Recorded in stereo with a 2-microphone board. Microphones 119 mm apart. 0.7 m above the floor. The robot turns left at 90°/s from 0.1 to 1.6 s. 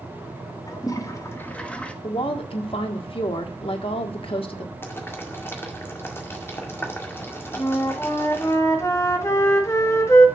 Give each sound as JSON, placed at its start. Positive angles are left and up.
{"t": 0.7, "sound": "a toilet flushing", "side_deg": 30, "distance_m": 1.1}
{"t": 2.0, "sound": "a woman speaking", "side_deg": 50, "distance_m": 1.5}
{"t": 4.8, "sound": "boiling", "side_deg": 20, "distance_m": 1.9}
{"t": 7.6, "sound": "a flute", "side_deg": 25, "distance_m": 1.5}